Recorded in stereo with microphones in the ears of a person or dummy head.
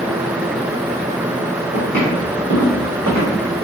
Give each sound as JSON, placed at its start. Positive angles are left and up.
{"t": 1.7, "sound": "footsteps", "side_deg": 5, "distance_m": 2.0}